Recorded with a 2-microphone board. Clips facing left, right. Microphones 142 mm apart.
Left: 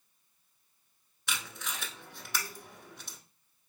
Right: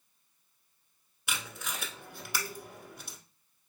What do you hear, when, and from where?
1.3 s tape being pulled: 10° right (ahead or behind), 0.9 m